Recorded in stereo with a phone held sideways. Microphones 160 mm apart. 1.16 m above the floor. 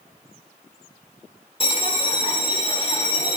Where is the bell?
35° left (ahead or behind), 1.3 m.